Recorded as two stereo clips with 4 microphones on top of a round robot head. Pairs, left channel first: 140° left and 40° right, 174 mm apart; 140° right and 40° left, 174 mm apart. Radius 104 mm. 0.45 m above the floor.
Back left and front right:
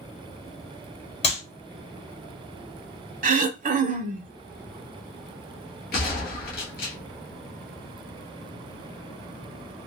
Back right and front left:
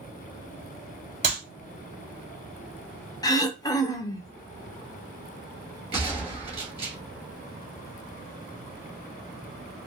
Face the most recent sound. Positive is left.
turn(degrees=100)